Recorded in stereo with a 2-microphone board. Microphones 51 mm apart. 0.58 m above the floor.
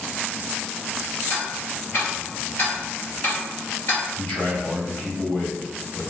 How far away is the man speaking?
About 1.2 m.